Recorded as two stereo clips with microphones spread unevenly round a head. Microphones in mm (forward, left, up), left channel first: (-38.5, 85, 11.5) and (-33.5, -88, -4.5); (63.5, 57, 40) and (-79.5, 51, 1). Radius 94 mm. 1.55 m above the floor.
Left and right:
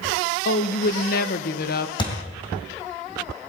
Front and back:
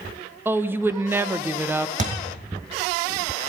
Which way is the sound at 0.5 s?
100° left.